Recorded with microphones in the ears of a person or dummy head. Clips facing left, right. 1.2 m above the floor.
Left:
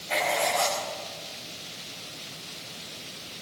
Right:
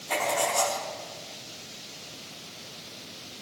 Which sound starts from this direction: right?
Writing, at 0.1 s.